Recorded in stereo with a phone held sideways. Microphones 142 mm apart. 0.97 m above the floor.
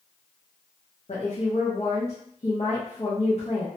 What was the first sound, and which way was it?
A woman speaking, 50° left (ahead or behind).